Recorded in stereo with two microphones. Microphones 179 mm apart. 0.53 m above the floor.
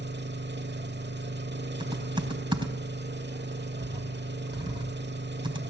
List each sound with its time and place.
0.0 s an engine running: 75° right (ahead or behind), 0.9 m
1.8 s typing on a keyboard: 25° right (ahead or behind), 3.5 m